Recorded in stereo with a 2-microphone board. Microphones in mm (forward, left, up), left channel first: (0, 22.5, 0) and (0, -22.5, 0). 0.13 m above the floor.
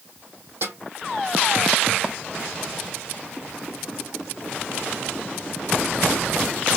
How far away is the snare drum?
About 2.5 m.